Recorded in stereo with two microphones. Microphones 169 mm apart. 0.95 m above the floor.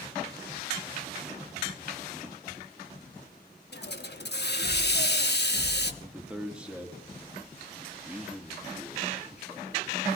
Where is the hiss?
80° left, 1.1 m.